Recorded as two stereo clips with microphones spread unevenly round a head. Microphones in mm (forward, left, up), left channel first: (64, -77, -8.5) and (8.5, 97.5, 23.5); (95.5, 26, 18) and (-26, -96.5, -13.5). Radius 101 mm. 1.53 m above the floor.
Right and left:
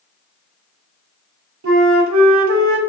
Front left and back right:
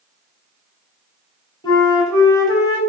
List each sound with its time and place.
1.6 s a flute: 115° left, 0.8 m